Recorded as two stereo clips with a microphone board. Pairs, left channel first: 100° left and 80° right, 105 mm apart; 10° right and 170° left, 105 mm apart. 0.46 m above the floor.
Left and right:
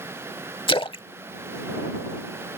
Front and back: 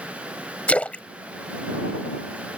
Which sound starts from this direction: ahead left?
A splash, at 0.7 s.